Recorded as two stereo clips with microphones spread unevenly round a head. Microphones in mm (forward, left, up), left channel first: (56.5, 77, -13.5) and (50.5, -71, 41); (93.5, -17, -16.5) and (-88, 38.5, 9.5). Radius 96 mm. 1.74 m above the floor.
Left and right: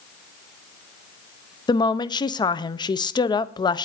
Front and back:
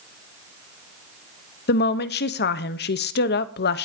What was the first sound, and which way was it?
A woman speaking, 20° left.